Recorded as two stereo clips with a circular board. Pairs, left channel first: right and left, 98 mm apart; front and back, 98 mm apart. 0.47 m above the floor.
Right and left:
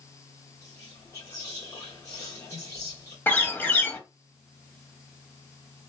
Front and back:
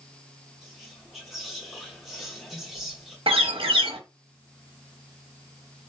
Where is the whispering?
95° right, 0.9 m.